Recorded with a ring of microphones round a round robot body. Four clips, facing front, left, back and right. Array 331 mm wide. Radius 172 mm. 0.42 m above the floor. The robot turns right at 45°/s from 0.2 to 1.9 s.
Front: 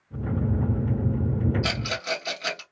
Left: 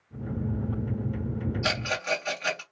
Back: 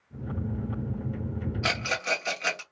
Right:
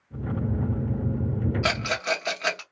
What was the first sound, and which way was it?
A rattle, 115° right.